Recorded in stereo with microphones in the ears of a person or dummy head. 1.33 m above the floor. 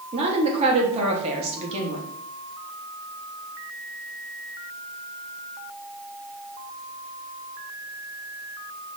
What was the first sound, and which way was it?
A woman speaking, 35° right (ahead or behind).